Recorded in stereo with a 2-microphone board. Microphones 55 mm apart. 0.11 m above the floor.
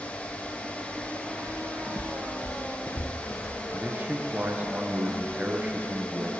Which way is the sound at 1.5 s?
45° right (ahead or behind).